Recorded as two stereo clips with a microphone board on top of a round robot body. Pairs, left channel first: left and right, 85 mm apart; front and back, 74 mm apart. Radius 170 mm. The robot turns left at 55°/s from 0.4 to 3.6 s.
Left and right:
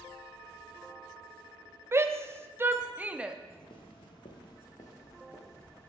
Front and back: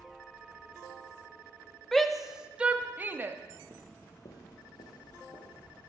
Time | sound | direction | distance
1.9 | a shout | 80° right | 0.9 m
3.5 | footsteps | 155° left | 0.5 m